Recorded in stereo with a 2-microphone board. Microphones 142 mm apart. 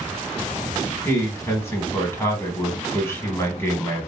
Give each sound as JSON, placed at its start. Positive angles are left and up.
{"t": 1.1, "sound": "a man speaking", "side_deg": 15, "distance_m": 1.0}